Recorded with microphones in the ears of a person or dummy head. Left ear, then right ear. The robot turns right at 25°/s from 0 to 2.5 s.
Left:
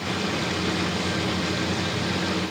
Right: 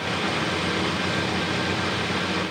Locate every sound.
Only background noise.